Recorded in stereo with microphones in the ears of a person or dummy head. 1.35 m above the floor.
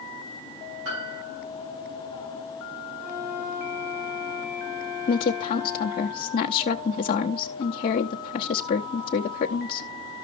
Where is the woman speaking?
30° left (ahead or behind), 1.0 m.